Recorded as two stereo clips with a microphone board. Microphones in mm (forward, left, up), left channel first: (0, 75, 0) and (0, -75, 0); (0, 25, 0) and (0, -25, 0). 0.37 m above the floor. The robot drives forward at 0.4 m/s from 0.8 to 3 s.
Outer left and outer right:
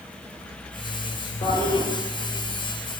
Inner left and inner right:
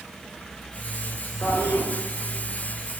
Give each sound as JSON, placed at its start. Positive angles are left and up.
{"t": 1.4, "sound": "a toilet flushing", "side_deg": 80, "distance_m": 0.9}